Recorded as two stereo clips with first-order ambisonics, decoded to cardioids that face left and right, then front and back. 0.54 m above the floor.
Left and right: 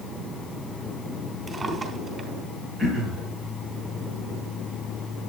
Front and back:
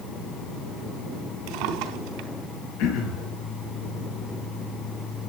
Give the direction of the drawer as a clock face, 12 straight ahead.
5 o'clock.